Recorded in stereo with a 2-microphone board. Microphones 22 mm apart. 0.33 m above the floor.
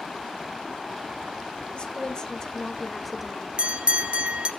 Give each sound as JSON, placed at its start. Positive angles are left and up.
{"t": 1.7, "sound": "a woman speaking", "side_deg": 45, "distance_m": 1.4}
{"t": 3.6, "sound": "a bell", "side_deg": -55, "distance_m": 1.4}